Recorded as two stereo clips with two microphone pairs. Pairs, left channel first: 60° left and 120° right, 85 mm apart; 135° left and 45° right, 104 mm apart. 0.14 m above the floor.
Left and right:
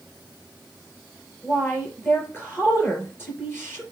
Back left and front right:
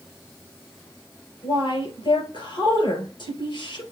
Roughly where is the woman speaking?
Behind left.